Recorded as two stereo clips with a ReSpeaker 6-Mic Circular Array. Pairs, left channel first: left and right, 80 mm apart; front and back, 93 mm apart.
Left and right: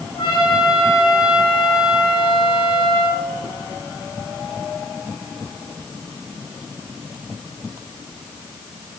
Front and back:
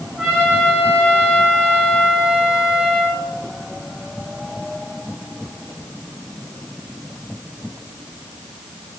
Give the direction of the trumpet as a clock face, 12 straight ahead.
9 o'clock.